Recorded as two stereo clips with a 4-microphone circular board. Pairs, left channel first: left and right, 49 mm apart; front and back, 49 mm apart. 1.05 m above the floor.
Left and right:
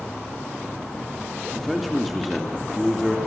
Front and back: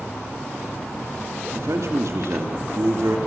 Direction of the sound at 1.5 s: Straight behind.